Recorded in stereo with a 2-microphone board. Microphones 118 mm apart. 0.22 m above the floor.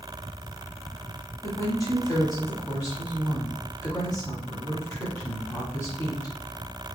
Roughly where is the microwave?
I don't hear a microwave.